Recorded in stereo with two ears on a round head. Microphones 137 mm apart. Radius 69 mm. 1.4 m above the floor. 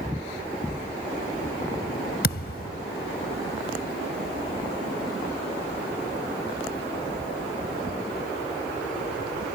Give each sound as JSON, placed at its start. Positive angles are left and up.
{"t": 2.2, "sound": "a thud", "side_deg": 70}